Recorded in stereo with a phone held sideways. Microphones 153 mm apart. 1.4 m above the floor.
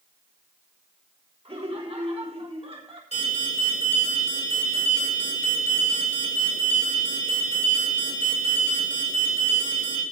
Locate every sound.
1.4 s laughter: 40° right (ahead or behind), 4 m
3.1 s an alarm: 45° left (ahead or behind), 8 m